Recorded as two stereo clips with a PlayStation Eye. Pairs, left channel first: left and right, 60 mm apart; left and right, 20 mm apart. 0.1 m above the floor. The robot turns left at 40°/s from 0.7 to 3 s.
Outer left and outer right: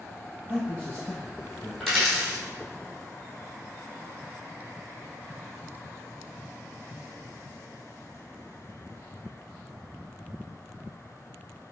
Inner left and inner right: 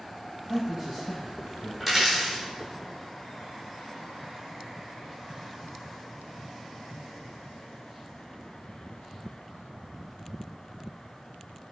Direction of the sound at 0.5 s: 15° right (ahead or behind).